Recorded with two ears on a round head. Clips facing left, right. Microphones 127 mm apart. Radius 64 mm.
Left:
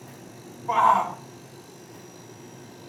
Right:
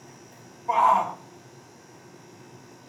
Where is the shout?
10° right (ahead or behind), 1.5 m.